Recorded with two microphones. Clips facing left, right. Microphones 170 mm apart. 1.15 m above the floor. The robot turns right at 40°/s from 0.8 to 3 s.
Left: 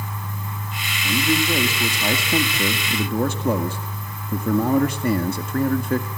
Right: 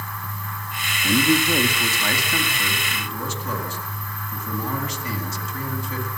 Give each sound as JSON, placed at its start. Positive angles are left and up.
{"t": 1.0, "sound": "a man speaking", "azimuth_deg": -20, "distance_m": 1.9}